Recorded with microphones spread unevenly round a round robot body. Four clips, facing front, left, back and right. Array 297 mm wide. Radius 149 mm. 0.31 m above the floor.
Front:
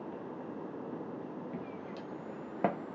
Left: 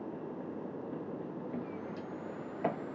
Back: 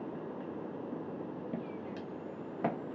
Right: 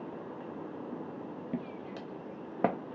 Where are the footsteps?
110° right, 0.8 m; by 2.8 s 65° right, 1.2 m.